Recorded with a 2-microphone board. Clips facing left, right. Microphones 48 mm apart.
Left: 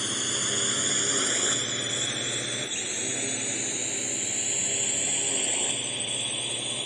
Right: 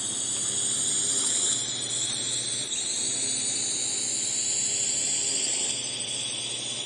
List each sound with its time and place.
0.0 s a drone: 55° left (ahead or behind); by 6.9 s 20° left (ahead or behind)